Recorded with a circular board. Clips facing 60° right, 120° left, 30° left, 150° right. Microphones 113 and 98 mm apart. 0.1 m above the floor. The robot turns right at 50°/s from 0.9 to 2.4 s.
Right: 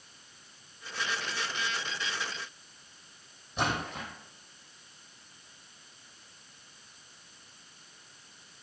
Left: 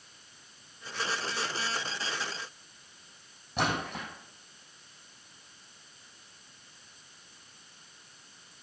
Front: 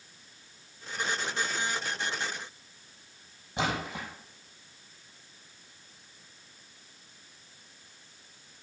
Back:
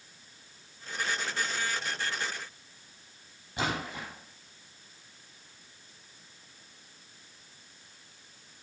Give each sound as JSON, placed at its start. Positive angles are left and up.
{"t": 3.6, "sound": "a splash", "azimuth_deg": 95, "distance_m": 4.0}